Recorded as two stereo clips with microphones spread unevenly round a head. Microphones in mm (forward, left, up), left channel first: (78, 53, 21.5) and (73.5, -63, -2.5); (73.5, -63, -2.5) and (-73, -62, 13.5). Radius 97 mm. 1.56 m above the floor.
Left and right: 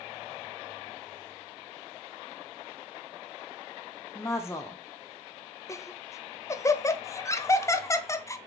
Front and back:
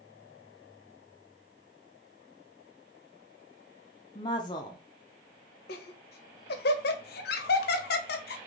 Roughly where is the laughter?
Ahead.